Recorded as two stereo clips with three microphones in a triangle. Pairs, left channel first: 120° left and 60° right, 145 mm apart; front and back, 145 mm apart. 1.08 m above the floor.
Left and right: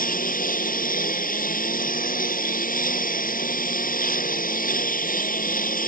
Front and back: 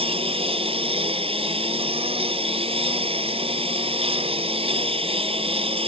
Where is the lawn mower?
130° left.